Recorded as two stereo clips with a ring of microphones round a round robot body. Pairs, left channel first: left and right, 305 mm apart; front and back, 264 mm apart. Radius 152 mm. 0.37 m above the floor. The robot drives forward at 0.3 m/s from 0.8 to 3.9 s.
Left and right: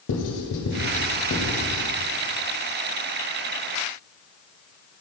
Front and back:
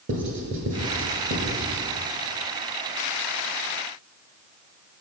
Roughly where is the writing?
Behind left.